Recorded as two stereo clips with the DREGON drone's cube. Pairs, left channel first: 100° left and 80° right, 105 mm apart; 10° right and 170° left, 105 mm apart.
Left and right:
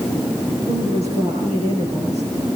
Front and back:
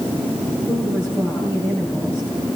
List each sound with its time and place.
0.7 s a woman speaking: 80° right, 8.5 m